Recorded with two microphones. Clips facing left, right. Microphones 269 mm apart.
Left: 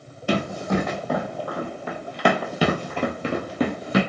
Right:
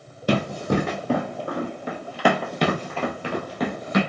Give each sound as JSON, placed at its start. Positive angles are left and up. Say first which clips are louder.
{"t": 0.3, "sound": "running footsteps", "louder": "right 1 dB", "side_deg": -45, "distance_m": 1.4}